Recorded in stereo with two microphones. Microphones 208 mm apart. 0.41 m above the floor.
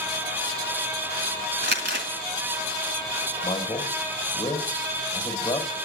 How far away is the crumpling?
About 1.9 m.